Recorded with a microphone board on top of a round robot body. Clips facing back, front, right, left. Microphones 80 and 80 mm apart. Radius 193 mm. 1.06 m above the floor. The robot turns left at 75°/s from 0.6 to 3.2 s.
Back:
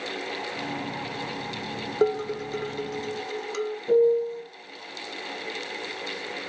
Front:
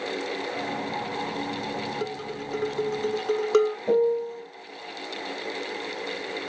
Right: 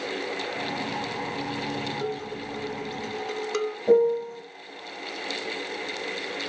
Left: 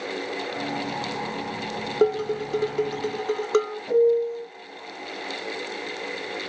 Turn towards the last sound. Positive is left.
turn(degrees=-40)